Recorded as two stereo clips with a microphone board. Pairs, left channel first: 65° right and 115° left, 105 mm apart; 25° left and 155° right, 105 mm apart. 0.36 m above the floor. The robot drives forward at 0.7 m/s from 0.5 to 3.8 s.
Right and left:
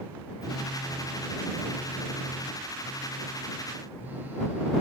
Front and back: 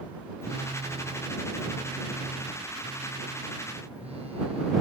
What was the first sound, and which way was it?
A phone buzzing, 160° right.